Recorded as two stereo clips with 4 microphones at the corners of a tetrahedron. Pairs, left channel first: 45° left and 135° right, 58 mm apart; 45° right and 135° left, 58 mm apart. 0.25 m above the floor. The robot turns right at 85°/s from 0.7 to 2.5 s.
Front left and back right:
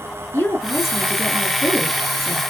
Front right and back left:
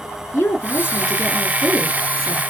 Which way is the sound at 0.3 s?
5° right.